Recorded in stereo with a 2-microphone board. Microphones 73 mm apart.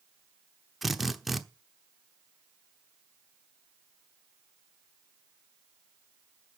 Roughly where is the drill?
Centre.